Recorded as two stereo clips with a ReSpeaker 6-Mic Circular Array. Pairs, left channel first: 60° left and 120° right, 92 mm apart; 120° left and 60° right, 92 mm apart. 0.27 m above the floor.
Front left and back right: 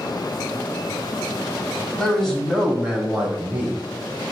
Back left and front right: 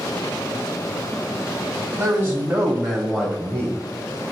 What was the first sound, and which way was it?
A man speaking, 20° right.